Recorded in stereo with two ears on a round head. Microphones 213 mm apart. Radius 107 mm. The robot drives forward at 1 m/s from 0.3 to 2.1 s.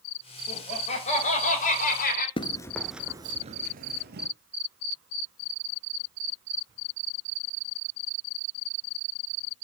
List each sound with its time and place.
0.5 s laughter: 25° left (ahead or behind), 5 m; by 2.3 s 40° left (ahead or behind), 3.5 m
2.4 s running footsteps: 25° left (ahead or behind), 1.0 m; by 4.3 s 45° right (ahead or behind), 1.5 m